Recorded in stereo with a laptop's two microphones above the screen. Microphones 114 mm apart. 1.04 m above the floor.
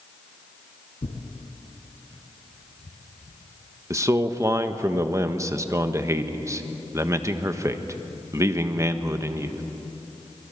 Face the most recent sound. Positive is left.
turn(degrees=-25)  # may be behind; listen again after turning